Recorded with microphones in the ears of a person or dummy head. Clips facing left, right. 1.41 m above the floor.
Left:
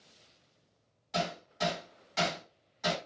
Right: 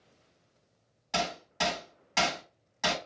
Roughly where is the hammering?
Right.